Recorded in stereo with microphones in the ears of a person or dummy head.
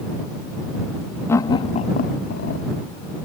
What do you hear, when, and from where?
1.3 s laughter: 10° left (ahead or behind); by 2.6 s 60° left (ahead or behind)